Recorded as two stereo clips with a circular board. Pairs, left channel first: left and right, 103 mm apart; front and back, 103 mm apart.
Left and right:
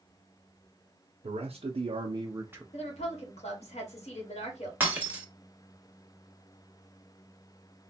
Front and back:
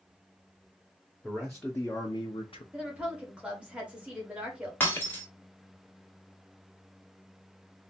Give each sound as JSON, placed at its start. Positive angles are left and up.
{"t": 1.2, "sound": "a man speaking", "azimuth_deg": -95, "distance_m": 0.8}
{"t": 2.7, "sound": "a woman speaking", "azimuth_deg": 100, "distance_m": 1.6}
{"t": 4.8, "sound": "breaking glass", "azimuth_deg": -45, "distance_m": 1.1}